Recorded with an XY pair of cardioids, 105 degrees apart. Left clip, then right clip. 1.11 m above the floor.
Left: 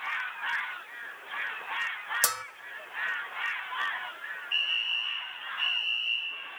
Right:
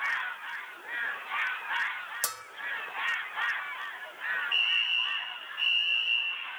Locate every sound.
2.2 s a bell: 40° left, 0.6 m
4.5 s a fire alarm: straight ahead, 6 m